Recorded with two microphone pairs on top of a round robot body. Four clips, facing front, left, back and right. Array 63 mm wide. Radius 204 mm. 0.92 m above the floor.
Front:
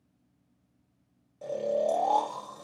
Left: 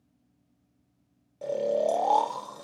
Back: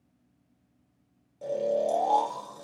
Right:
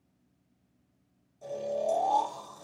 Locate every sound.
1.4 s snoring: 90° left, 0.6 m